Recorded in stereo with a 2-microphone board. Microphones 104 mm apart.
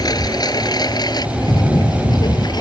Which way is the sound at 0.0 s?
40° left (ahead or behind).